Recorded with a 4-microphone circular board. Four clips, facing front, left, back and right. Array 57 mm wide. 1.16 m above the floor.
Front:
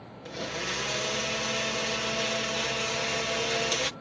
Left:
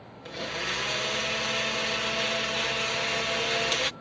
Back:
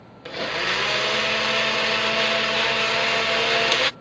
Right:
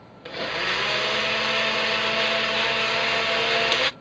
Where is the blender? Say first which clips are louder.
Right 6 dB, back 9 dB; 150° right.